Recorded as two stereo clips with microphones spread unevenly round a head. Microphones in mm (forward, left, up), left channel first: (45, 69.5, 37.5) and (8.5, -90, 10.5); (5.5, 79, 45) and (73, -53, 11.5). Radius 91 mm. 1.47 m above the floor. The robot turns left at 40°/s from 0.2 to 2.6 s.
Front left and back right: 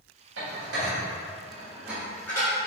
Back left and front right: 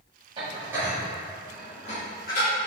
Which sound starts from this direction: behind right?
Dishes clattering, at 0.4 s.